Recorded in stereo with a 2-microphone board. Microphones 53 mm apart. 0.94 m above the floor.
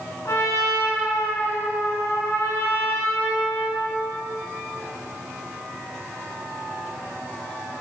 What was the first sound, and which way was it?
A trumpet, 70° left (ahead or behind).